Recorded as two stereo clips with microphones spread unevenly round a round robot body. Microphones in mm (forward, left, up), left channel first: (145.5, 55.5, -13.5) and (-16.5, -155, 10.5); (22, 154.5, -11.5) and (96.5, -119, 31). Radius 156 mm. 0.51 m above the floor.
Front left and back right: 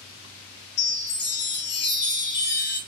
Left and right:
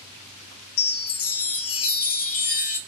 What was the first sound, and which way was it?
A chime, 95° left.